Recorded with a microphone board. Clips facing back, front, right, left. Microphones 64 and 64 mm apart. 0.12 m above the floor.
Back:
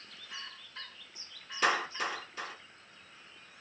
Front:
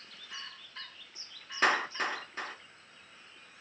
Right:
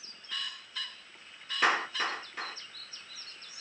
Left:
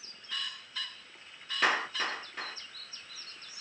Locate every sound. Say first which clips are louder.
1.6 s a clap: front 2 dB, right 1 dB; 5° right, 1.2 m